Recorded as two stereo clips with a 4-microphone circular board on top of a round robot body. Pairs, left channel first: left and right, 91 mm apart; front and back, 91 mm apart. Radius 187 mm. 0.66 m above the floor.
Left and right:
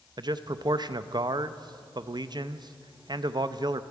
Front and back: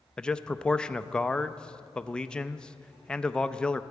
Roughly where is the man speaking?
Right.